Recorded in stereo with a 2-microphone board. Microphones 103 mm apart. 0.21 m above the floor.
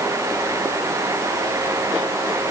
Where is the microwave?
I don't hear a microwave.